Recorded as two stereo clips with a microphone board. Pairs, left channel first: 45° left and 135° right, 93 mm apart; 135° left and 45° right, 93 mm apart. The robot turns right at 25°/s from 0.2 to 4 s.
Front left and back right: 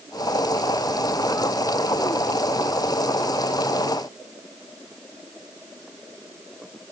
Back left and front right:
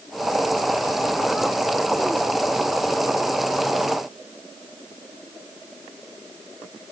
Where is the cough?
I don't hear a cough.